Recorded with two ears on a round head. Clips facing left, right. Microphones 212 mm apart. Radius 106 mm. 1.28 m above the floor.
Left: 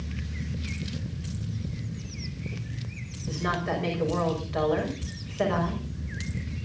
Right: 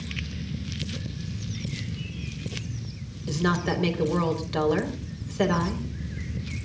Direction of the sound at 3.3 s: 55° right (ahead or behind).